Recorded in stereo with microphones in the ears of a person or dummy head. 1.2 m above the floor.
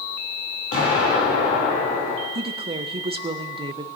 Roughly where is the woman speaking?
Right.